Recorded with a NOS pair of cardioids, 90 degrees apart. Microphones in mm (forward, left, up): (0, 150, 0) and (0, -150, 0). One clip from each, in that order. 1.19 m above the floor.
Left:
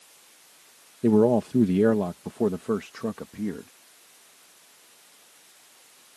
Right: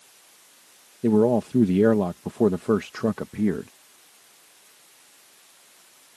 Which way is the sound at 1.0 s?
10° left.